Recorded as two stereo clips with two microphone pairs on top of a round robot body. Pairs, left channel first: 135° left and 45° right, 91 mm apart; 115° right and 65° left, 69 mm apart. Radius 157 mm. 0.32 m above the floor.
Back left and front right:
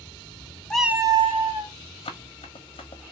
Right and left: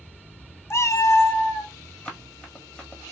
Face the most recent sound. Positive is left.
turn(degrees=165)